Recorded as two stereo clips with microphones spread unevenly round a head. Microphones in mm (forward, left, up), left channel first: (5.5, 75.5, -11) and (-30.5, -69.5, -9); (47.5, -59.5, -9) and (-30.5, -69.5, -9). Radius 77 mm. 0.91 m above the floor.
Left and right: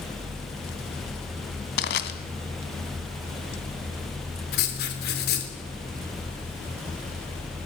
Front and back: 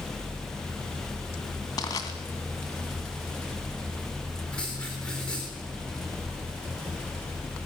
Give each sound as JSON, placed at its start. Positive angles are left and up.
{"t": 1.8, "sound": "crushing", "azimuth_deg": 65, "distance_m": 2.0}
{"t": 4.5, "sound": "writing", "azimuth_deg": 90, "distance_m": 3.5}